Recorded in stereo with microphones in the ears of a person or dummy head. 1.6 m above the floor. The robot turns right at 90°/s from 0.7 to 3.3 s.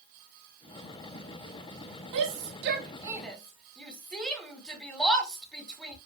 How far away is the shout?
About 2.5 m.